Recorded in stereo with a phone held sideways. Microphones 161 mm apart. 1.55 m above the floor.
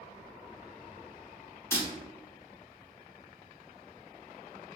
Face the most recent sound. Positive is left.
turn(degrees=15)  # may be behind; listen again after turning